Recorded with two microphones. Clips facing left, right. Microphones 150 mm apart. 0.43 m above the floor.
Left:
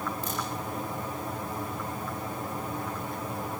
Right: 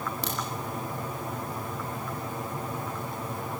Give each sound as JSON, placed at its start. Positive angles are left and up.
{"t": 0.2, "sound": "a crack", "side_deg": -80, "distance_m": 9.5}